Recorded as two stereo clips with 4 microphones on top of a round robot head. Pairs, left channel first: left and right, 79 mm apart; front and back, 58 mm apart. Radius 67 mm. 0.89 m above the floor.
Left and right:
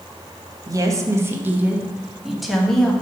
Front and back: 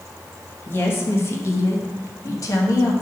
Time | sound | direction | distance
0.7 | a woman speaking | 50° right | 1.2 m